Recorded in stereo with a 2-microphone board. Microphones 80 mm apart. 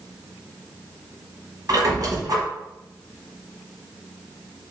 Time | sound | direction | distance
1.7 | a squeak | 50° right (ahead or behind) | 1.2 m